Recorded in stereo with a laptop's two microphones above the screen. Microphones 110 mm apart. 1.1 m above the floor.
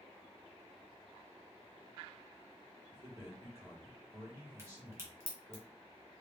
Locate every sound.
2.9 s a man speaking: 25° right (ahead or behind), 1.4 m
4.6 s a crack: 20° right (ahead or behind), 1.0 m